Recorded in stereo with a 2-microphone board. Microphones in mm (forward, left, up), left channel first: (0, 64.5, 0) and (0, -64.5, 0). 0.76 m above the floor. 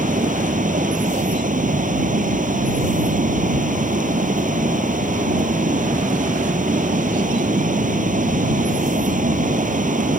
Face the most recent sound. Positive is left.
turn(degrees=-80)